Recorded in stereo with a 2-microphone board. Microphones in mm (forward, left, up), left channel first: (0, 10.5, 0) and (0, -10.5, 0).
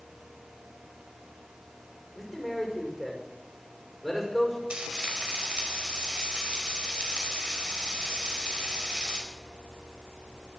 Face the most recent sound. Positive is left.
turn(degrees=-60)  # may be behind; listen again after turning